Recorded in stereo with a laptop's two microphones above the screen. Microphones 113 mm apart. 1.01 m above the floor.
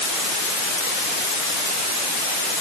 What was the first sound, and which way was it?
Only background noise.